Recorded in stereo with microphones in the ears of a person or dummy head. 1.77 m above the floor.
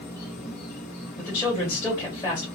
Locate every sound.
0.0 s an insect: 50° left (ahead or behind), 1.6 m
1.2 s a man speaking: 15° left (ahead or behind), 1.6 m